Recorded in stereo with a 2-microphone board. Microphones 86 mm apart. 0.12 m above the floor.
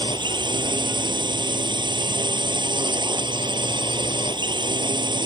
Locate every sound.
0.0 s a drone: 60° right (ahead or behind)